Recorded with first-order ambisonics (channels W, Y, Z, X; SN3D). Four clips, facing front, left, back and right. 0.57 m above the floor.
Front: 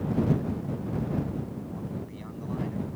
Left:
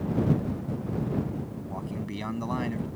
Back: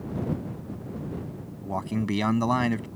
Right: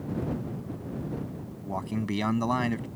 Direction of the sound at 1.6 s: 160° right.